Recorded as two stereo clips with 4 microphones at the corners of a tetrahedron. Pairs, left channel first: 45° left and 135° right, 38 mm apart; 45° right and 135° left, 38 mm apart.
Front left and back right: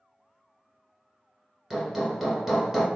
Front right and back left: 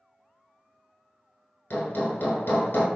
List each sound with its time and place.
1.7 s hammering: 55° right, 1.0 m